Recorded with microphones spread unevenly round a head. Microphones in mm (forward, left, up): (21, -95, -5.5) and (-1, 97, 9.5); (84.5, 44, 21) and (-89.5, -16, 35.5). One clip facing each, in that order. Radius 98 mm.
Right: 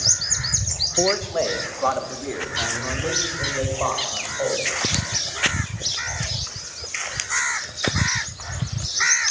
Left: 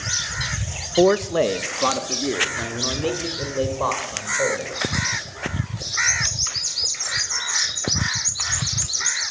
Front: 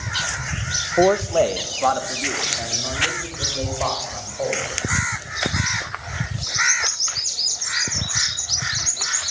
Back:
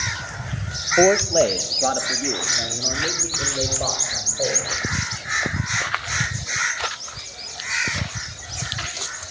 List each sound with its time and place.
1.0 s a man speaking: 115° left, 0.8 m; by 4.7 s 145° left, 6.5 m